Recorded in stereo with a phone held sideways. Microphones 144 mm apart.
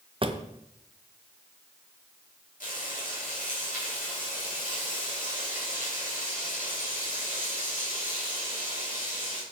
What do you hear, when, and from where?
0.2 s a drawer: 40° right (ahead or behind), 0.8 m
2.6 s frying: 70° left (ahead or behind), 4.5 m